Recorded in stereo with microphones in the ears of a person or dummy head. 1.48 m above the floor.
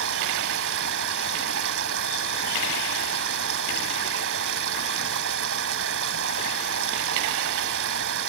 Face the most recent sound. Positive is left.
turn(degrees=-65)  # may be behind; listen again after turning